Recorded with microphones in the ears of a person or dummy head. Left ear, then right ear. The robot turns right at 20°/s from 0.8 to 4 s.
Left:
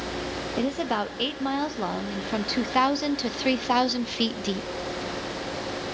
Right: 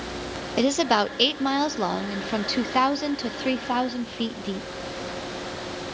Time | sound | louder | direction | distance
0.6 | a woman speaking | right 7 dB | 35° right | 0.7 m